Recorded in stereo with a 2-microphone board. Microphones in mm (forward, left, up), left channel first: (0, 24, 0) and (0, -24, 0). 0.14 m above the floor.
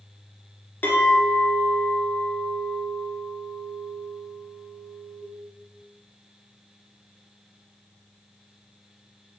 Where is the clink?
45° left (ahead or behind), 0.9 m.